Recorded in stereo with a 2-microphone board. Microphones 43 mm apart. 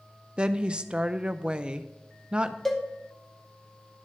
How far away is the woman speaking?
About 0.6 m.